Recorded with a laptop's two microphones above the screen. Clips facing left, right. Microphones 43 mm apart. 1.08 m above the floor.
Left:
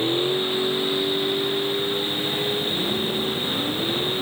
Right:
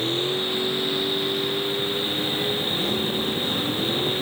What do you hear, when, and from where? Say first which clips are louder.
0.0 s a vehicle: left 2 dB; 25° left (ahead or behind); by 4.2 s 10° left (ahead or behind)